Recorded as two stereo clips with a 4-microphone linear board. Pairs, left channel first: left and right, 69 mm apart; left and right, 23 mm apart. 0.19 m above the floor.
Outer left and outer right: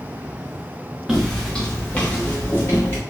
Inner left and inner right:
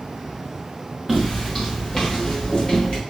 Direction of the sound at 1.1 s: 5° right (ahead or behind).